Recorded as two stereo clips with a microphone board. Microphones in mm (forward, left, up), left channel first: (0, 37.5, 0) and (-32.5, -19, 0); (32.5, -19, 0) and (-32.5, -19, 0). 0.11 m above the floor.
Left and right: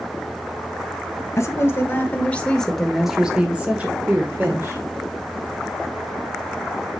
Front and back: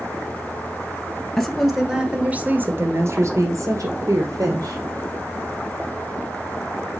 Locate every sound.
1.4 s a woman speaking: 80° left, 1.8 m; by 4.8 s 170° right, 3 m